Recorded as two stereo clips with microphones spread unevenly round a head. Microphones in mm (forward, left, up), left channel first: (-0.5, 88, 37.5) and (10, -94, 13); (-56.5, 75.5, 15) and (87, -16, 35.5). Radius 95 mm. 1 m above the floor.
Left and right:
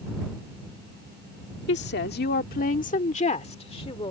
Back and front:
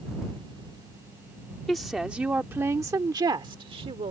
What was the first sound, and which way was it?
A woman speaking, 60° left.